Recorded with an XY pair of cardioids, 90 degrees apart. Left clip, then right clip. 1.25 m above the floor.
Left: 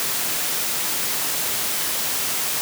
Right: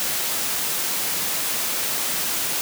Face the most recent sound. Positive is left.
No sound to turn to.